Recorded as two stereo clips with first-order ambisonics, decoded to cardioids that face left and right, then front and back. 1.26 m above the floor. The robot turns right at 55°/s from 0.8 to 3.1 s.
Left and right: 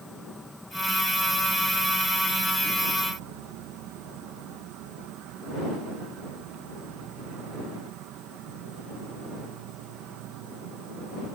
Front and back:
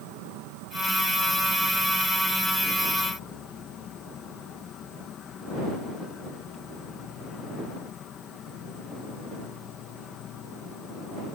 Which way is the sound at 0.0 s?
Straight behind.